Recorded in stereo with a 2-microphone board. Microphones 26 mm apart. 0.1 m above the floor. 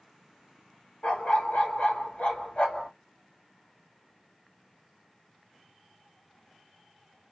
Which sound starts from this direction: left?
A dog barking, at 1.0 s.